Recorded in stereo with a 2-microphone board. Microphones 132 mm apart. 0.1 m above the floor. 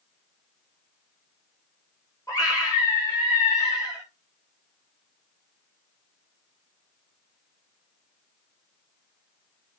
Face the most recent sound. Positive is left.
turn(degrees=30)  # may be behind; listen again after turning